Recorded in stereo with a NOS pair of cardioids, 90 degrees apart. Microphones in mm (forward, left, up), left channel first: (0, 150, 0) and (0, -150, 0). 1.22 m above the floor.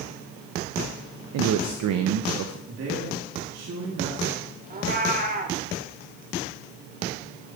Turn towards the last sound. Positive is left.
turn(degrees=-30)